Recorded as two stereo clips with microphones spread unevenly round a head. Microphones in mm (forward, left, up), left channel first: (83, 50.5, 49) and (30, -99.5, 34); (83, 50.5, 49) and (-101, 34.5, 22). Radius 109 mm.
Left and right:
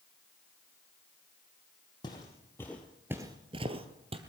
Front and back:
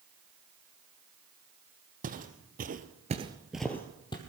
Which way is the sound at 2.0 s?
140° left.